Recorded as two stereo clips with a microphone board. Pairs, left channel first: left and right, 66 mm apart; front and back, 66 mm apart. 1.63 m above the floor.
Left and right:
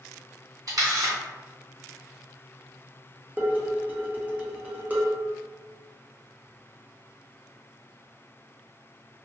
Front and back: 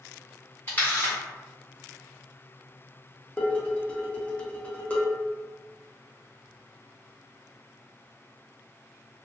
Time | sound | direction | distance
0.7 | a camera shutter | 65° right | 1.5 m
3.4 | dishes clattering | 50° right | 0.7 m